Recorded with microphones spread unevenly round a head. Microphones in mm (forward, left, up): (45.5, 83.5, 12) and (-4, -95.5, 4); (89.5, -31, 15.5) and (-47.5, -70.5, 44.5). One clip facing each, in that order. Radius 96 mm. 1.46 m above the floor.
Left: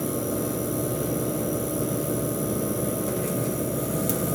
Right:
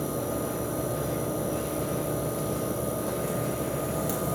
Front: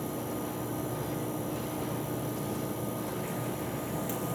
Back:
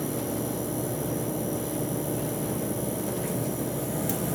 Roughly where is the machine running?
Behind left.